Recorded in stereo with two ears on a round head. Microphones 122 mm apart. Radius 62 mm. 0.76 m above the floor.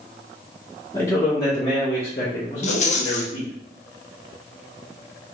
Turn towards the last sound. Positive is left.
turn(degrees=55)  # may be behind; listen again after turning